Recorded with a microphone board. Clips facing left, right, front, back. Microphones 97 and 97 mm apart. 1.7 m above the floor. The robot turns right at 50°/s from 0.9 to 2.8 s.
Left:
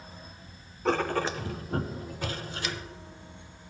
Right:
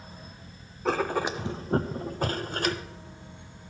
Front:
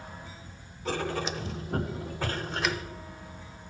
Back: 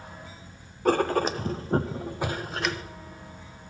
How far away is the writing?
About 0.5 m.